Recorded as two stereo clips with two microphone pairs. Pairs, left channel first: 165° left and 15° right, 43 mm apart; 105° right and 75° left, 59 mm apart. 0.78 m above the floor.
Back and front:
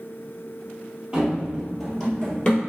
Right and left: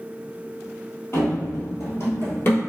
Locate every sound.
1.1 s running footsteps: 80° right, 1.2 m; by 2.6 s 140° right, 1.1 m